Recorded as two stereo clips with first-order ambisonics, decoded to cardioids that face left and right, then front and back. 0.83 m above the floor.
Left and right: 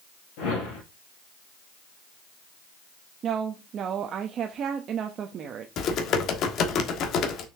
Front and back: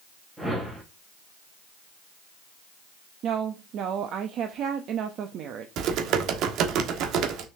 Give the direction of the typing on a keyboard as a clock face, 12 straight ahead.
7 o'clock.